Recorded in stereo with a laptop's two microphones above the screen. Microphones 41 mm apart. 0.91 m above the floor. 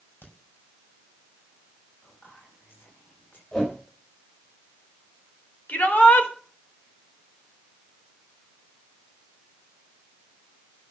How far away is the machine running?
No machine running in this recording.